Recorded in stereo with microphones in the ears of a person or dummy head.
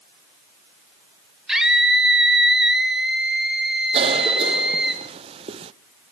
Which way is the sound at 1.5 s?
5° right (ahead or behind).